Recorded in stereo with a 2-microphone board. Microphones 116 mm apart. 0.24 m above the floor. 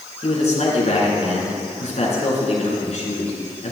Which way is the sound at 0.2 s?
65° left (ahead or behind).